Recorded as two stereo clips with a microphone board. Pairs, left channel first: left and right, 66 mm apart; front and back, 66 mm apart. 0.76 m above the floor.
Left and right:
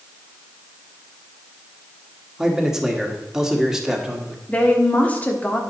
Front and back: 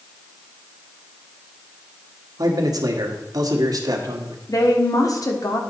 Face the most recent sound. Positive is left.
turn(degrees=25)